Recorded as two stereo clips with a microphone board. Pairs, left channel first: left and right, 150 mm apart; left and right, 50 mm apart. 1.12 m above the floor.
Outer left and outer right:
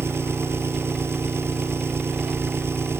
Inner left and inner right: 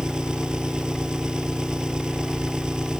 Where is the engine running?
15° right (ahead or behind).